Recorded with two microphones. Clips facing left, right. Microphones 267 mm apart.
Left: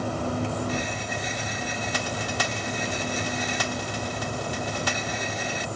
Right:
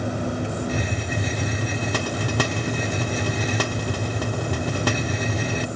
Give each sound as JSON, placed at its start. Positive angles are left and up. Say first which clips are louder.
{"t": 0.7, "sound": "a hiss", "louder": "right 3 dB", "side_deg": -65}